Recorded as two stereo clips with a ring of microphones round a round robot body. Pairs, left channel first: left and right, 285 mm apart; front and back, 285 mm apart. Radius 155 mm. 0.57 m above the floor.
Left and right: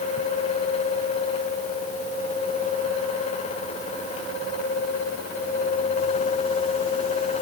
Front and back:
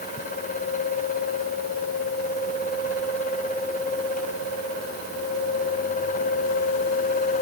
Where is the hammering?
No hammering in this recording.